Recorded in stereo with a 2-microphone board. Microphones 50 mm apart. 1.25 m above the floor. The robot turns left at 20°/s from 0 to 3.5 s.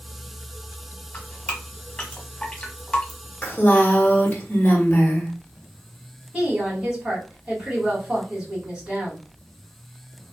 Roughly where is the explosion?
I don't hear an explosion.